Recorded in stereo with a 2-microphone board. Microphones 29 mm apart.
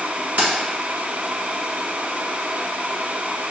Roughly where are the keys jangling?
Right.